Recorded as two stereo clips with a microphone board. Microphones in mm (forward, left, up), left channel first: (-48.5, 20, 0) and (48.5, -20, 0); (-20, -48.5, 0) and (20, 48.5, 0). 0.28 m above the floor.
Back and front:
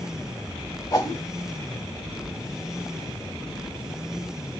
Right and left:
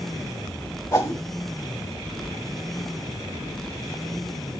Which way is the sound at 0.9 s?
160° right.